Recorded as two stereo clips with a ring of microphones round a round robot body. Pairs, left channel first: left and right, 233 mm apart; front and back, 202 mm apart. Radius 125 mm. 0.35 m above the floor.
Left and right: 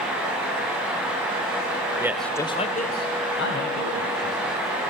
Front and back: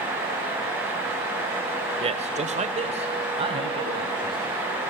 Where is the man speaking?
155° right, 1.3 m; by 4.5 s 115° left, 4 m.